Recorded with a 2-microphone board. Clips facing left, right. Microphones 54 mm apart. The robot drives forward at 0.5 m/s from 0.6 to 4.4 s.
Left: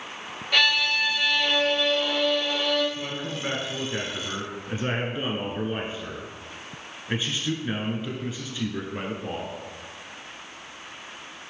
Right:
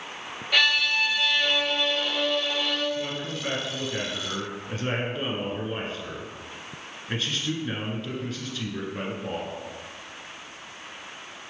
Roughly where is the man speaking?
Centre.